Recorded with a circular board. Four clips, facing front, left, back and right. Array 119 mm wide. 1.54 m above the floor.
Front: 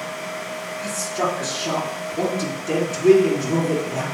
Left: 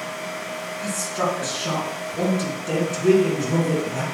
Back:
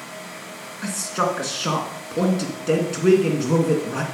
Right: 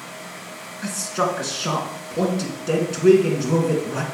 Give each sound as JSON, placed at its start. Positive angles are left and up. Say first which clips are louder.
{"t": 0.8, "sound": "a man speaking", "louder": "right 2 dB, back 1 dB", "azimuth_deg": -155, "distance_m": 2.5}